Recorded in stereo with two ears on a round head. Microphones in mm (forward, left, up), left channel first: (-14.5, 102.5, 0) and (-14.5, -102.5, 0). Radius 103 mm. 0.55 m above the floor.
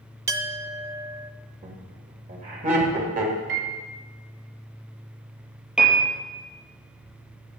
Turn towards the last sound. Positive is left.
turn(degrees=-5)  # may be behind; listen again after turning